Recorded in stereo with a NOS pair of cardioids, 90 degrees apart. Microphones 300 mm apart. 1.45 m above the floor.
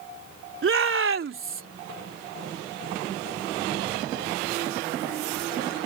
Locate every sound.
0.6 s a shout: 45° right